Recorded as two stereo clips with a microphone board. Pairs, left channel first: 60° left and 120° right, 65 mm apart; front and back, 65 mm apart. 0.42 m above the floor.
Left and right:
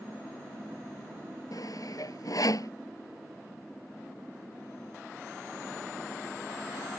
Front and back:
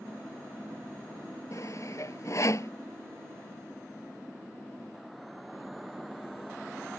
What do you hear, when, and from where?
1.5 s sawing: 35° left